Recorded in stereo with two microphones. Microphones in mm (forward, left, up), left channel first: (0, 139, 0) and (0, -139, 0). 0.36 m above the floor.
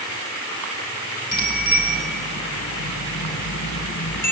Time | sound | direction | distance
1.3 | a bicycle bell | 65° left (ahead or behind) | 4 m